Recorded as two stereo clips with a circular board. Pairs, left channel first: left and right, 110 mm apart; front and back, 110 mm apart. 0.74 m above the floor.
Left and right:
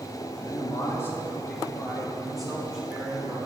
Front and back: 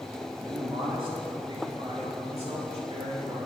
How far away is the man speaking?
About 1.7 m.